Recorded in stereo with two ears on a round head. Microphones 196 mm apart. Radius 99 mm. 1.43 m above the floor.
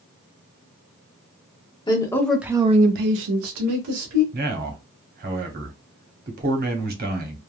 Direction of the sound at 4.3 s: 40° right (ahead or behind).